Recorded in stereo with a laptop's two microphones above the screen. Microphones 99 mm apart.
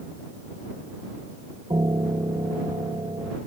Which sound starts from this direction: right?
A piano, at 1.7 s.